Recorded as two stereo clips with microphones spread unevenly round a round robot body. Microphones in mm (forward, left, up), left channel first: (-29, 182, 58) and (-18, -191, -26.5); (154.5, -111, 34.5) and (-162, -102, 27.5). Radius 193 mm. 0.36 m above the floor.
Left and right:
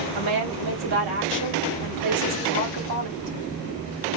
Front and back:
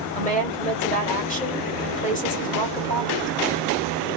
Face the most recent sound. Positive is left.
turn(degrees=-65)